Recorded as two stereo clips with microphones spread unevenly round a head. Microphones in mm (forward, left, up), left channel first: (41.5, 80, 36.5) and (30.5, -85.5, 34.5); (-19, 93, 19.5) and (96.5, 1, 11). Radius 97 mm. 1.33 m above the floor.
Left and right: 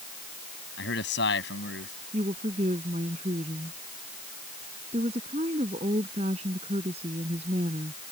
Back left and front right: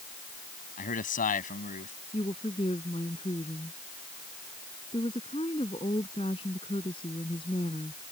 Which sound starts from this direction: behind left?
A man speaking, at 0.8 s.